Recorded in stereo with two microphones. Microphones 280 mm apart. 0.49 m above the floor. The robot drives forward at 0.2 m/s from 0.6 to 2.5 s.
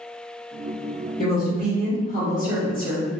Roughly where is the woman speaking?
Left.